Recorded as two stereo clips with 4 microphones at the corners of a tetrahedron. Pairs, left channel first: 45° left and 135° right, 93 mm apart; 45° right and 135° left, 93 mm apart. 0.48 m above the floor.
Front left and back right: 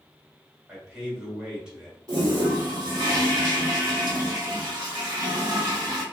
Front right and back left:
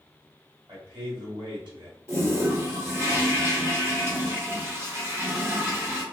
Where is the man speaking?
145° left, 1.7 m.